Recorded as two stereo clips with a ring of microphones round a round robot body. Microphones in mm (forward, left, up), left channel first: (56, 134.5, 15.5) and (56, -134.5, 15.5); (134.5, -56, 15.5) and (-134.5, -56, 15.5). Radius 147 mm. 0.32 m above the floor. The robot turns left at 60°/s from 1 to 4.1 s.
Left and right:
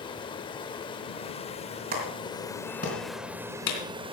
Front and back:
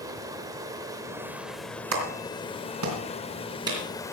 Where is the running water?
125° left, 0.7 m; by 4.1 s 60° right, 0.7 m.